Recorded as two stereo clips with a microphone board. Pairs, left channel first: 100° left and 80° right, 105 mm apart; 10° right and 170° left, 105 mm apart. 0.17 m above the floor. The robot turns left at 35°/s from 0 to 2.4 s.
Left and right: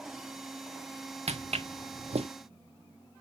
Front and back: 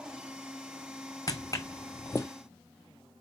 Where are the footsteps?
70° right, 0.9 m; by 2.3 s 80° right, 1.2 m.